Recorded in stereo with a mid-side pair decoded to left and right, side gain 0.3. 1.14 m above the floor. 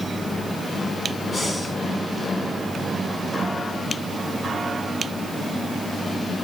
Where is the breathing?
50° left, 6 m.